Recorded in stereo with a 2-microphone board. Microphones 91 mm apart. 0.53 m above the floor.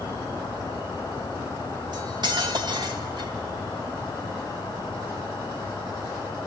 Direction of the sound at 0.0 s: 45° left (ahead or behind).